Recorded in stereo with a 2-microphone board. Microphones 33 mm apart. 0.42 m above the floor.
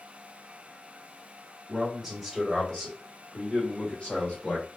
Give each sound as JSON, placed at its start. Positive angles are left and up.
{"t": 1.7, "sound": "a man speaking", "side_deg": -10, "distance_m": 1.4}